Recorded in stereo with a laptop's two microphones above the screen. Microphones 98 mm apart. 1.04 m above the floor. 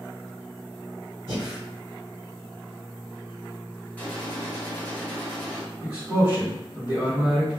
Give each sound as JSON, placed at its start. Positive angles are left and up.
{"t": 1.3, "sound": "breathing", "side_deg": -30, "distance_m": 1.8}
{"t": 4.0, "sound": "a gunshot", "side_deg": 15, "distance_m": 0.9}
{"t": 5.8, "sound": "a man speaking", "side_deg": -40, "distance_m": 1.1}